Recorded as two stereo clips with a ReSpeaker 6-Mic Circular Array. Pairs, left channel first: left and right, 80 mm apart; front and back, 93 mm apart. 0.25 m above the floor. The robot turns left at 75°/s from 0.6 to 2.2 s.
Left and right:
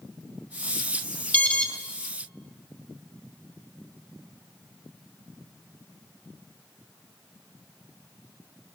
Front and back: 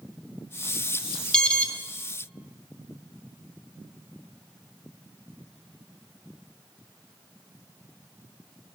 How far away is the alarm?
About 0.9 m.